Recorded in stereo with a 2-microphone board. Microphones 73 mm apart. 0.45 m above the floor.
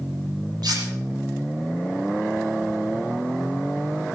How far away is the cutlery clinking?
About 8.5 m.